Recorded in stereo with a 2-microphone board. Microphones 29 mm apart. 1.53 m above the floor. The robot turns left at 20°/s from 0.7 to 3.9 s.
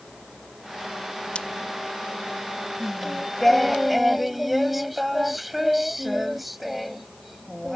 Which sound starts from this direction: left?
Scissors, at 1.4 s.